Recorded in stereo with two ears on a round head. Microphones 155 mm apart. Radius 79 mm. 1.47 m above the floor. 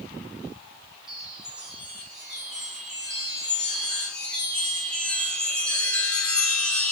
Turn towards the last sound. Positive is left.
turn(degrees=5)  # may be behind; listen again after turning